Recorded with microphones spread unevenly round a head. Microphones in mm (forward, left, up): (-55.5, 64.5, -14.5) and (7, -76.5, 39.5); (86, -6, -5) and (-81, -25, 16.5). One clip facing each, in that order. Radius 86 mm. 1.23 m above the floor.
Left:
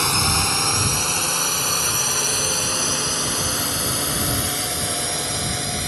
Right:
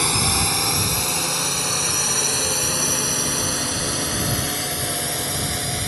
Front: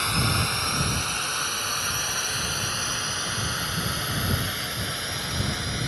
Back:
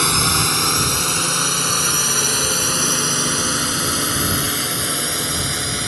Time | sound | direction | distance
0.0 | a drone | 150° right | ?